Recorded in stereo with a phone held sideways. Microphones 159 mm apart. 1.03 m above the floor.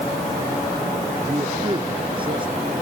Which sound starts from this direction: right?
A man speaking, at 1.3 s.